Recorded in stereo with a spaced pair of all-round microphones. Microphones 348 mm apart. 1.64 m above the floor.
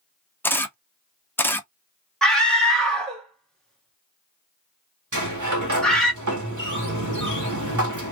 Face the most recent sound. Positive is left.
turn(degrees=-55)  # may be behind; listen again after turning